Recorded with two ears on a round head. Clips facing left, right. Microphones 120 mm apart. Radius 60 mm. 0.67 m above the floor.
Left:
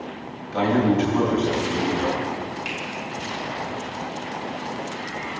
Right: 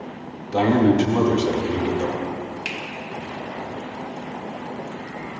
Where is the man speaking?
55° right (ahead or behind), 2 m.